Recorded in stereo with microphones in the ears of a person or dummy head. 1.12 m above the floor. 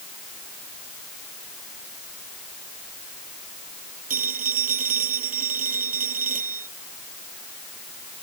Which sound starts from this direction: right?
A phone ringing, at 4.1 s.